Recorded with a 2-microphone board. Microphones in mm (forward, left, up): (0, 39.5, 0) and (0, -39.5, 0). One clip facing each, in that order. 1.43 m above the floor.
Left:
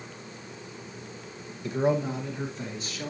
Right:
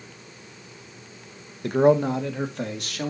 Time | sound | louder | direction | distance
1.6 | a man speaking | right 7 dB | 60° right (ahead or behind) | 1.4 m